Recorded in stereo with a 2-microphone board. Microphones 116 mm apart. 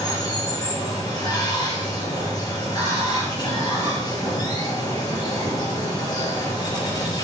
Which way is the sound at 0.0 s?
35° left (ahead or behind).